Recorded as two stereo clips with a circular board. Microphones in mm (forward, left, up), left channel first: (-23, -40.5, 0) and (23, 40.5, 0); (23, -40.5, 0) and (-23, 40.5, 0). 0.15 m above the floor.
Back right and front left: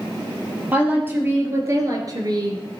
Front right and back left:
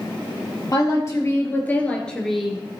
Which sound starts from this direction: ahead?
A woman speaking, at 0.7 s.